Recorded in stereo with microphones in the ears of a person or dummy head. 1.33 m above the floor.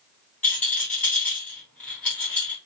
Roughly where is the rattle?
Centre.